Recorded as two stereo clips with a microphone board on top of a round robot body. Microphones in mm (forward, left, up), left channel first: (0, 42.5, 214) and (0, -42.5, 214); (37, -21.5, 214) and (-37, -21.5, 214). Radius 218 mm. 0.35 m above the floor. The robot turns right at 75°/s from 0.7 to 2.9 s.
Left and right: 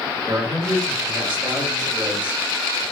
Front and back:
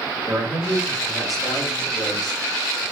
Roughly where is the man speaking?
Behind right.